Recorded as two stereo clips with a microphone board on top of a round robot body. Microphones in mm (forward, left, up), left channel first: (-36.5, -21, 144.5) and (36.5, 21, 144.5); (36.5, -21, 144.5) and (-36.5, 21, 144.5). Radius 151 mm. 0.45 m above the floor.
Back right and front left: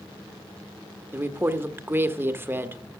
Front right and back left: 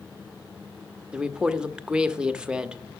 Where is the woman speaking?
75° left, 1.2 m.